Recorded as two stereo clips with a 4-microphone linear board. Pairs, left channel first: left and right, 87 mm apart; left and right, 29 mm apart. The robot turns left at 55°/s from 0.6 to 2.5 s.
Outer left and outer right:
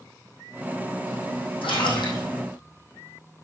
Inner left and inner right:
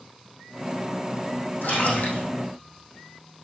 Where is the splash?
90° left, 4 m; by 2.2 s 55° left, 4 m.